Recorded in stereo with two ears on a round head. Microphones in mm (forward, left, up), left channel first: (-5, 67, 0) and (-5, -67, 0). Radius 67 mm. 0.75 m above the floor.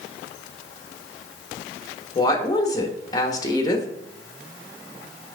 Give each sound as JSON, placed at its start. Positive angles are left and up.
{"t": 2.1, "sound": "a woman speaking", "side_deg": 25, "distance_m": 1.1}